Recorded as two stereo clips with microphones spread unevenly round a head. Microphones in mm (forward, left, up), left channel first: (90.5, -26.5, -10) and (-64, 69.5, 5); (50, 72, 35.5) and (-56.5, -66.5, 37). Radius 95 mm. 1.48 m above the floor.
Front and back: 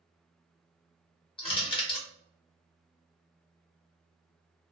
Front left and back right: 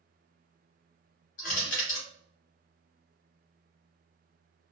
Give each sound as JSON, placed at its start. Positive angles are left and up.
{"t": 1.4, "sound": "crushing", "azimuth_deg": 25, "distance_m": 1.0}